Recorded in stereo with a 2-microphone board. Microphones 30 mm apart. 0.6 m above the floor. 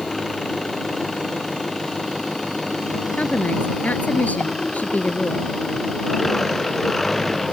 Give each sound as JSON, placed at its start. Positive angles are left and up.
{"t": 0.0, "sound": "an engine running", "side_deg": 5}
{"t": 3.2, "sound": "a woman speaking", "side_deg": 60}